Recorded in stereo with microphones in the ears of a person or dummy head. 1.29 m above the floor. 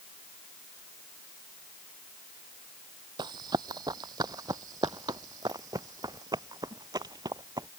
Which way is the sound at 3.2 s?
25° right (ahead or behind).